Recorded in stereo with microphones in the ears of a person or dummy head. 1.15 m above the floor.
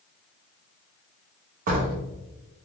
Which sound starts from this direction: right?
A door slam, at 1.7 s.